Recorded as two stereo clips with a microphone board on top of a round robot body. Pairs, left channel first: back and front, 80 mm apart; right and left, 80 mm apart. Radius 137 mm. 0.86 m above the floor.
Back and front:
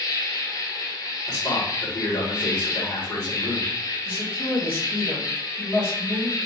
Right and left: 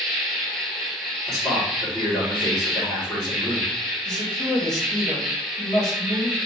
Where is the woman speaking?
125° right, 2.5 m.